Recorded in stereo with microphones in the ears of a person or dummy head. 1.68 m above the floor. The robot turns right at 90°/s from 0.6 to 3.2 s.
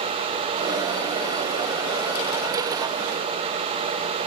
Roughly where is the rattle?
No rattle in this recording.